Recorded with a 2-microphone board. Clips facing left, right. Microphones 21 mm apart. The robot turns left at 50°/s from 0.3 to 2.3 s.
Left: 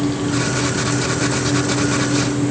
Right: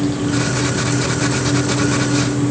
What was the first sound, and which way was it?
Only background noise.